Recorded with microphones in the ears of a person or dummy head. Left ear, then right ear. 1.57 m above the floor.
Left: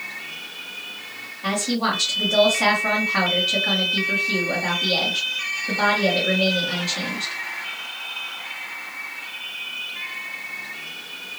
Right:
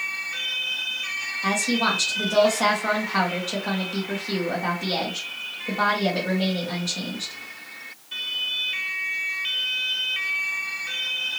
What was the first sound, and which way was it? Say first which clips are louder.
A woman speaking: even; 45° right (ahead or behind).